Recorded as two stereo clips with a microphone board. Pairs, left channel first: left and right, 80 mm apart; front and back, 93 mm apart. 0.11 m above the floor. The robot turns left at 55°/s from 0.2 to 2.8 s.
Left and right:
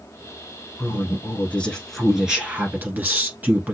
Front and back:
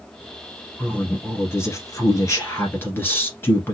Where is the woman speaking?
70° left, 1.4 m; by 3.7 s 40° right, 1.4 m.